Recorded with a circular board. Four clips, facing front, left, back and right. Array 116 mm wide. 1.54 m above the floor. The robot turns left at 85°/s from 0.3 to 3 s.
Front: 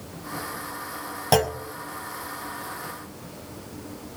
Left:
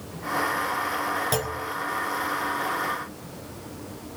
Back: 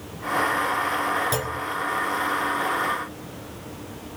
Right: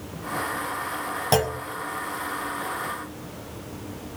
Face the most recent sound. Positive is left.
turn(degrees=-170)